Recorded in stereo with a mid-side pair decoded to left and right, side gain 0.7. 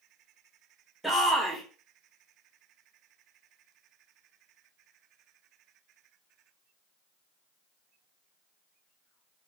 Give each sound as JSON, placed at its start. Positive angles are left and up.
{"t": 1.0, "sound": "a shout", "azimuth_deg": 0, "distance_m": 1.6}